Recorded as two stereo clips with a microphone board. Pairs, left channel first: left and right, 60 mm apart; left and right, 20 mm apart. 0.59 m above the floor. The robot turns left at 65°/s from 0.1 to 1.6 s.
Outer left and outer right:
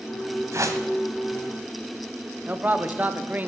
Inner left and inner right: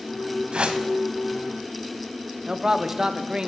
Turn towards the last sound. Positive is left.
turn(degrees=-30)  # may be behind; listen again after turning